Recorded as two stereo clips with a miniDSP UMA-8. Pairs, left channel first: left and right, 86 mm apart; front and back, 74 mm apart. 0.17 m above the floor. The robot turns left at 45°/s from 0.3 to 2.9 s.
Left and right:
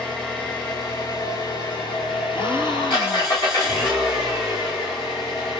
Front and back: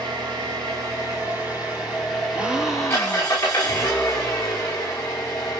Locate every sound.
0.0 s an engine running: 170° left, 6.5 m; by 5.6 s 55° left, 6.5 m
2.3 s a gasp: 110° left, 2 m; by 3.6 s 85° left, 2 m